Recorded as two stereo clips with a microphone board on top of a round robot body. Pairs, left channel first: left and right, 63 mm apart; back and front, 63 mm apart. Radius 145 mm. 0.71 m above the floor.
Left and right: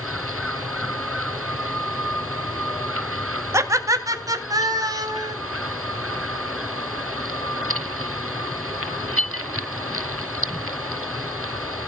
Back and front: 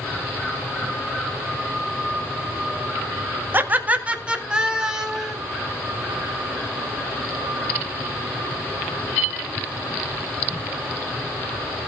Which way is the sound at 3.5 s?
55° right.